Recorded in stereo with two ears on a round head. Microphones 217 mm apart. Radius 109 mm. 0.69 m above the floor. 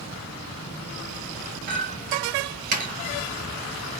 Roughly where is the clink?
Right.